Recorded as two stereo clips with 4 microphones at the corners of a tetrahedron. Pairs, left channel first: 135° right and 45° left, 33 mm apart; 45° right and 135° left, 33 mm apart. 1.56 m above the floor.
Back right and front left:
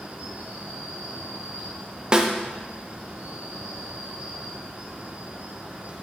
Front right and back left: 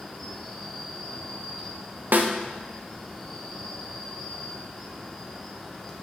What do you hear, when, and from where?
0.0 s an insect: 40° left, 1.4 m
2.1 s a snare drum: 110° left, 0.8 m